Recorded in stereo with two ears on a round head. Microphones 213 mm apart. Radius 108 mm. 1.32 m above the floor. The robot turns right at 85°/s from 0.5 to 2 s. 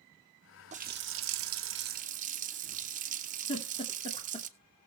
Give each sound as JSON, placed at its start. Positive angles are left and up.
{"t": 0.7, "sound": "a running tap", "azimuth_deg": -145, "distance_m": 0.7}
{"t": 3.5, "sound": "a giggle", "side_deg": 25, "distance_m": 2.0}